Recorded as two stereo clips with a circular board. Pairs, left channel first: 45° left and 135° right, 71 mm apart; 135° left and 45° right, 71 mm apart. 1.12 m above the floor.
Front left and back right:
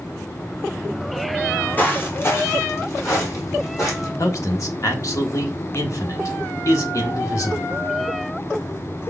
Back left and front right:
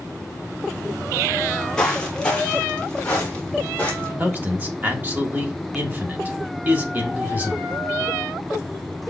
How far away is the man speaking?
About 1.1 m.